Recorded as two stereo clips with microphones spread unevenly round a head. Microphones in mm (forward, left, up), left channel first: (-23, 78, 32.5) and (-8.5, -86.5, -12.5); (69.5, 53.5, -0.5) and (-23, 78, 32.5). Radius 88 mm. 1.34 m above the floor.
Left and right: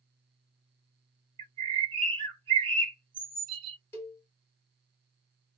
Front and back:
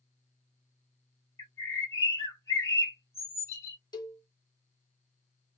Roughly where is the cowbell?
Ahead left.